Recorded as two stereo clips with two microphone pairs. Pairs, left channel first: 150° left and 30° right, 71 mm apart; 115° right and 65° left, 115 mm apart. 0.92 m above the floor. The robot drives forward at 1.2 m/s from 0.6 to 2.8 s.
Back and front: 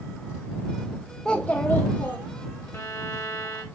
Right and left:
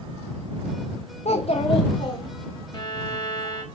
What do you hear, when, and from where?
1.2 s a child speaking: 125° right, 0.7 m; by 2.3 s 160° right, 1.8 m
2.7 s a violin: 160° right, 1.6 m; by 3.6 s 165° right, 1.7 m